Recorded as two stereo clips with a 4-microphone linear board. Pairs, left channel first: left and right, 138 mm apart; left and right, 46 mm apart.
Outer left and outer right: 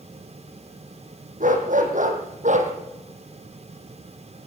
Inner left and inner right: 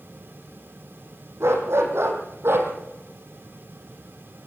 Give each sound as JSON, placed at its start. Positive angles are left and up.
{"t": 1.4, "sound": "a dog barking", "side_deg": -70, "distance_m": 5.0}